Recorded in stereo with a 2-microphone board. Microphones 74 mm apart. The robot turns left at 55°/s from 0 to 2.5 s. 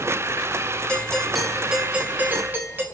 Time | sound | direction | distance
0.9 | a doorbell | 15° left (ahead or behind) | 1.5 m